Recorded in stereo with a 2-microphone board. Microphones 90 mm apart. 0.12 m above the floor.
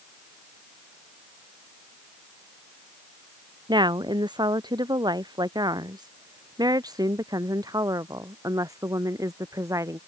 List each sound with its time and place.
3.7 s a woman speaking: 55° right (ahead or behind); by 10.0 s 35° right (ahead or behind)